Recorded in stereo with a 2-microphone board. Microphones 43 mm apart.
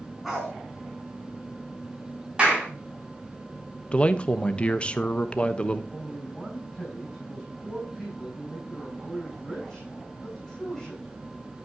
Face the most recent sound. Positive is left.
turn(degrees=15)  # may be behind; listen again after turning